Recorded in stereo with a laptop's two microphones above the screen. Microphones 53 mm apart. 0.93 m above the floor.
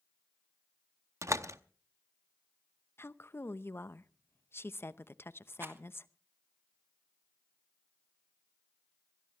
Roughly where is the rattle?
Right.